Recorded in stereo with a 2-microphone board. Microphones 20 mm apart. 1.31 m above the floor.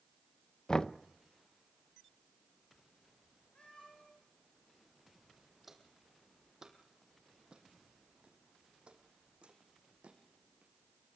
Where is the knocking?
35° left (ahead or behind), 0.6 m.